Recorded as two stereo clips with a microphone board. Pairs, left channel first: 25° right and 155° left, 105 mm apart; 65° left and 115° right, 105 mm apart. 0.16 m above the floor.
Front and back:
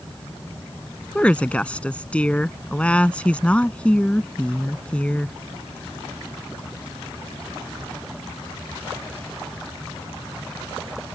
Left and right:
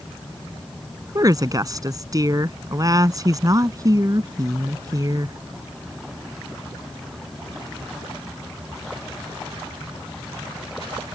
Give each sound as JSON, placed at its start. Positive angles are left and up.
{"t": 1.1, "sound": "a woman speaking", "azimuth_deg": -95}